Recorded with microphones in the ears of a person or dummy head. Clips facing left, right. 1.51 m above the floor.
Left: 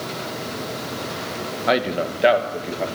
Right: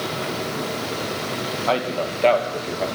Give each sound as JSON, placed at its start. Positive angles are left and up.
{"t": 1.7, "sound": "a man speaking", "side_deg": 20, "distance_m": 1.3}